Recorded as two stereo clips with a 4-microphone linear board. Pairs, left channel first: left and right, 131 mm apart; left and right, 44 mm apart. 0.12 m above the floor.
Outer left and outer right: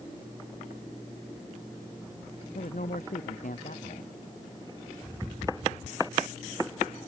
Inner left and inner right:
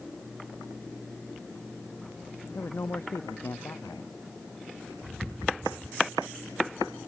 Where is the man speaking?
70° left (ahead or behind).